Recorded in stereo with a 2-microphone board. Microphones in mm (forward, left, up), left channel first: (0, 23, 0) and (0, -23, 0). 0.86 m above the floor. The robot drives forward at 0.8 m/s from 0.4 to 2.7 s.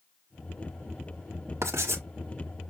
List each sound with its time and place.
1.6 s writing: 80° right, 1.1 m; by 2.0 s 70° right (ahead or behind), 1.1 m